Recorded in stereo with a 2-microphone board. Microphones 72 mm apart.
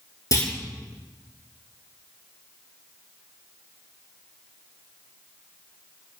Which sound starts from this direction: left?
A clunk, at 0.3 s.